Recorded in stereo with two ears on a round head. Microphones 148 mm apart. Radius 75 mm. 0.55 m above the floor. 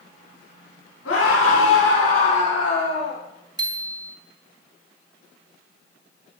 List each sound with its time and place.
1.1 s a scream: 75° left (ahead or behind), 8 m; by 3.2 s 70° left (ahead or behind), 9 m
3.6 s a bicycle bell: 25° right (ahead or behind), 2.5 m